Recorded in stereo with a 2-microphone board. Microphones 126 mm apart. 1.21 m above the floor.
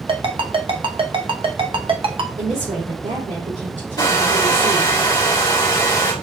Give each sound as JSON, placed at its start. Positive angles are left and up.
{"t": 0.1, "sound": "a ringtone", "side_deg": -45, "distance_m": 0.7}
{"t": 2.4, "sound": "a woman speaking", "side_deg": -80, "distance_m": 3.5}
{"t": 4.0, "sound": "a hair dryer", "side_deg": 35, "distance_m": 2.0}